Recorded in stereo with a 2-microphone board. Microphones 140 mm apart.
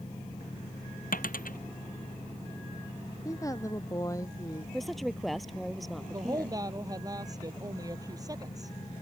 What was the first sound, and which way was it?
A dropped coin, 85° left.